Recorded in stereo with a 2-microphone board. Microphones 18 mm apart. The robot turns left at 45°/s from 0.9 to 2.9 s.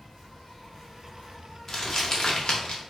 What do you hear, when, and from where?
0.0 s an insect: 160° left, 2.0 m; by 2.9 s 70° left, 2.0 m
1.7 s crumpling: 25° left (ahead or behind), 0.8 m; by 2.8 s 75° left (ahead or behind), 0.8 m